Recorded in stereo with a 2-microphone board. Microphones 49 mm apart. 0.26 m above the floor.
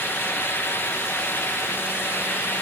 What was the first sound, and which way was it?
Only background noise.